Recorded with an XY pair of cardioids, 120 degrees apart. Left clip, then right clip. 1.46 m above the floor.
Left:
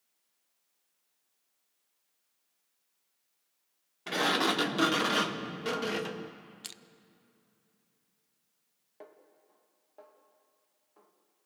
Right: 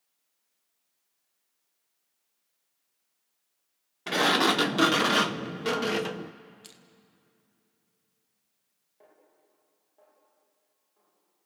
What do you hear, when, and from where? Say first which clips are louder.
4.1 s a sliding door: right 5 dB; 30° right, 0.7 m
6.6 s crushing: left 6 dB; 45° left, 0.7 m
9.0 s a snare drum: left 6 dB; 60° left, 2.5 m